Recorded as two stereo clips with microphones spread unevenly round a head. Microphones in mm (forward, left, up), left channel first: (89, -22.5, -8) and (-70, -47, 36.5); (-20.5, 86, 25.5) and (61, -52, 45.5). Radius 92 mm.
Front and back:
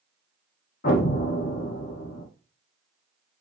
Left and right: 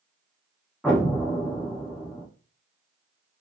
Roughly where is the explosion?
Ahead left.